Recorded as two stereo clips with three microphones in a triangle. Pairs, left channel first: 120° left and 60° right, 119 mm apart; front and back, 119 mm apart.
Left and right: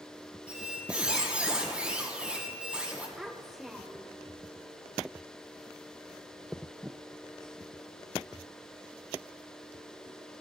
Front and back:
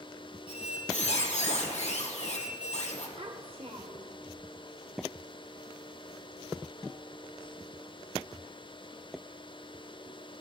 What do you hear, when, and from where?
0.5 s a squeak: 20° left, 3 m
3.2 s a child speaking: 145° right, 0.9 m